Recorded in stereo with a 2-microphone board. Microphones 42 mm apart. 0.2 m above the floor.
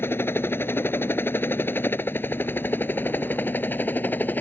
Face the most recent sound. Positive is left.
turn(degrees=45)  # may be behind; listen again after turning